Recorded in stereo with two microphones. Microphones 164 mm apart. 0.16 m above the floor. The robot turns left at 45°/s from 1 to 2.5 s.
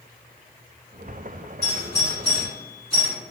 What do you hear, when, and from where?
1.6 s a doorbell: 20° left (ahead or behind), 1.9 m; by 3.1 s 35° left (ahead or behind), 1.9 m